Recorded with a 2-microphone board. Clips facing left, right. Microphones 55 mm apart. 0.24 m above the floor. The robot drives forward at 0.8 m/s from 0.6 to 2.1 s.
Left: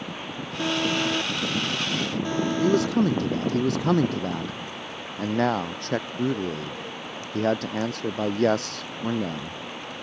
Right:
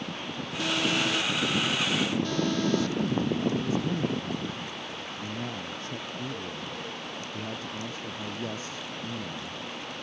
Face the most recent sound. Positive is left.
turn(degrees=75)  # may be behind; listen again after turning